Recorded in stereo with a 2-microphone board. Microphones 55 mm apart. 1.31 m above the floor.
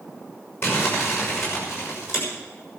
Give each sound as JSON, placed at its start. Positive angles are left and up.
{"t": 0.6, "sound": "crumpling", "side_deg": 50, "distance_m": 6.0}